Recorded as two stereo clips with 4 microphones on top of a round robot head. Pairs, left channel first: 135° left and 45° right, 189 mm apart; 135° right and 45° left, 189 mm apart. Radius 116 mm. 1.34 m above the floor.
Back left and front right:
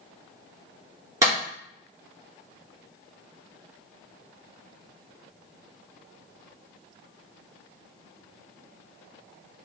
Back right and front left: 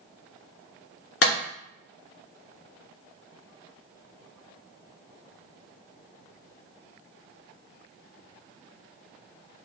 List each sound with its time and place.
1.2 s a clap: 120° right, 3 m